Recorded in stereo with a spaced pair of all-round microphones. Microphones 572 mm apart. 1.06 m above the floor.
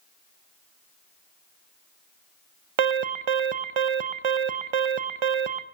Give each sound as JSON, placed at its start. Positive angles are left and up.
{"t": 2.8, "sound": "an alarm", "side_deg": -55, "distance_m": 0.6}